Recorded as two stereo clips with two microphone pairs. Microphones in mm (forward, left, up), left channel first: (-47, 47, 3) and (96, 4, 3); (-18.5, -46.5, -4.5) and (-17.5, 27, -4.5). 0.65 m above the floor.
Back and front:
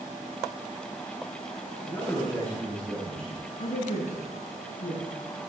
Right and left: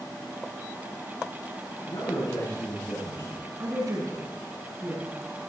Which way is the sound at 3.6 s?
135° left.